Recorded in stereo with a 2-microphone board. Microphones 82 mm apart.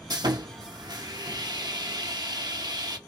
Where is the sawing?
55° right (ahead or behind), 0.8 m.